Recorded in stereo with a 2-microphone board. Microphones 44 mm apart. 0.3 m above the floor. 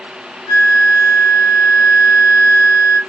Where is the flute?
40° right (ahead or behind), 1.1 m.